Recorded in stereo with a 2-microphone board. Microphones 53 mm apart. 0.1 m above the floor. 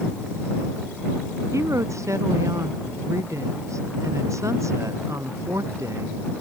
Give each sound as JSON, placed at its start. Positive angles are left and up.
{"t": 1.5, "sound": "a woman speaking", "side_deg": -75}